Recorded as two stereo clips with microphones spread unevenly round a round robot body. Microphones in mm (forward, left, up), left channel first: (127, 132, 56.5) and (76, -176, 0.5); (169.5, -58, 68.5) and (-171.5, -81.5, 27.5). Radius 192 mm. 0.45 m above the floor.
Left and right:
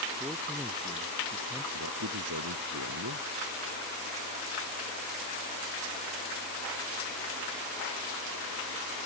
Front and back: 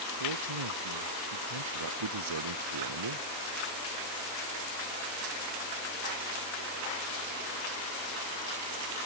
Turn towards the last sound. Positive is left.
turn(degrees=-155)